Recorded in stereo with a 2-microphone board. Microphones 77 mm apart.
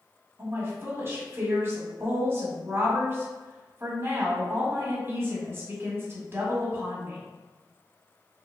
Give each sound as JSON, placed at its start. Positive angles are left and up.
{"t": 0.4, "sound": "a woman speaking", "side_deg": -35, "distance_m": 1.4}